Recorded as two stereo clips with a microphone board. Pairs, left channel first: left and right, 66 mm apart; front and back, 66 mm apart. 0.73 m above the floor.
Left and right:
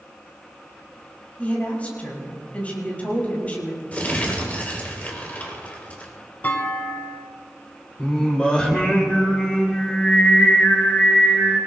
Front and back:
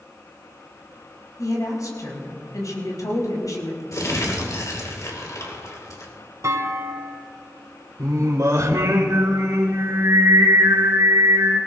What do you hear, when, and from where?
1.4 s a woman speaking: 25° left, 5.5 m
3.9 s crumpling: 25° left, 3 m
6.4 s a clunk: 150° left, 1.4 m
8.0 s singing: 165° left, 2.5 m